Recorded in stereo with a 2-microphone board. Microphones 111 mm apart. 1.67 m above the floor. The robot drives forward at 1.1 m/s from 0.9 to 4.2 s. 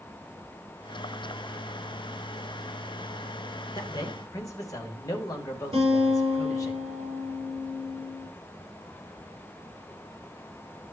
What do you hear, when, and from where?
3.8 s a man speaking: 40° left (ahead or behind), 2.0 m; by 6.7 s 30° left (ahead or behind), 2.5 m
5.7 s a guitar: 55° right (ahead or behind), 6 m